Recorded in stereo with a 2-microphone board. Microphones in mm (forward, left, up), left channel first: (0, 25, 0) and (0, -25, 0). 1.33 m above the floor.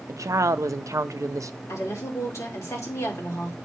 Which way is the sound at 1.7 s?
75° left (ahead or behind).